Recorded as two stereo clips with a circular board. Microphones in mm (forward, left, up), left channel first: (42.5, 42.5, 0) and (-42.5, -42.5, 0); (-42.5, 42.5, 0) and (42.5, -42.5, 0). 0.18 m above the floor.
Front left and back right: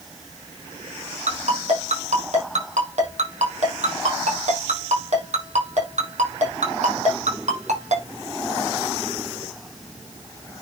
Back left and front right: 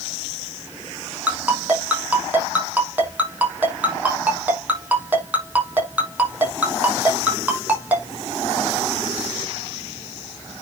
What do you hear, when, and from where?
1.3 s a ringtone: 120° right, 5 m